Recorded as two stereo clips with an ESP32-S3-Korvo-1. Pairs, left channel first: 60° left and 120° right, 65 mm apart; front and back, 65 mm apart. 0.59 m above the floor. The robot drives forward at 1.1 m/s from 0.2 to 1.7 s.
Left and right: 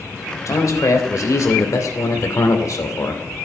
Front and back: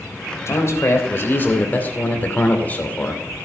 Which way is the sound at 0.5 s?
35° left.